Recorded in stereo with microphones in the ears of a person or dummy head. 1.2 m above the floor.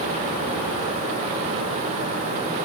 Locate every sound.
Only background noise.